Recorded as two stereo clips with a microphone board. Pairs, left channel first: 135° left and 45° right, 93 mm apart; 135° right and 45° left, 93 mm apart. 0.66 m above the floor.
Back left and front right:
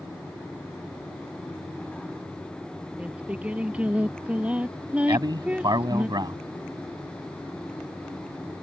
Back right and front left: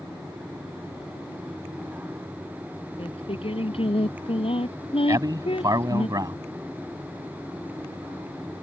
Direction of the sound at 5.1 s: 5° right.